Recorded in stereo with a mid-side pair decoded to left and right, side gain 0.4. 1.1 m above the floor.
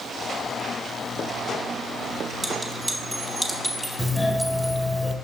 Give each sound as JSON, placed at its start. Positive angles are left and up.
{"t": 2.4, "sound": "a clink", "azimuth_deg": -10, "distance_m": 2.0}
{"t": 4.0, "sound": "a doorbell", "azimuth_deg": 5, "distance_m": 1.4}